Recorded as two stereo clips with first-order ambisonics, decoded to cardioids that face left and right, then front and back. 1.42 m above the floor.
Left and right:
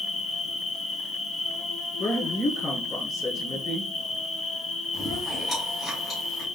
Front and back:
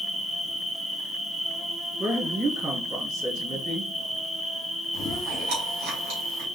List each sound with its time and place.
0.0 s an insect: 85° left, 0.9 m
2.0 s a woman speaking: 145° left, 3.5 m
4.9 s chewing: 170° left, 2.5 m